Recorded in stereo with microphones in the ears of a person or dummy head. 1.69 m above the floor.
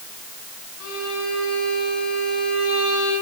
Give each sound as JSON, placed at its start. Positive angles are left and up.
{"t": 0.8, "sound": "a violin", "side_deg": 75, "distance_m": 7.5}